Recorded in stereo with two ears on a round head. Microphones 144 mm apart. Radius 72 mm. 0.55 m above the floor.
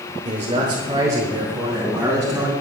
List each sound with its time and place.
0.2 s a man speaking: 40° right (ahead or behind), 1.3 m; by 2.5 s 10° right (ahead or behind), 4 m